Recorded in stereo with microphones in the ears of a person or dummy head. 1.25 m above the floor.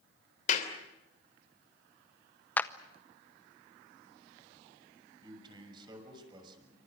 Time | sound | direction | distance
0.5 | a clap | 45° left (ahead or behind) | 3 m
2.6 | a clap | 10° left (ahead or behind) | 0.7 m
5.2 | a man speaking | 30° right (ahead or behind) | 6.5 m